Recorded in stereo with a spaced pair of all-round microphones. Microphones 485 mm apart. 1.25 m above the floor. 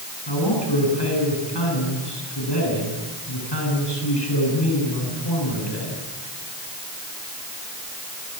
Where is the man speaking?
55° left (ahead or behind), 10 m.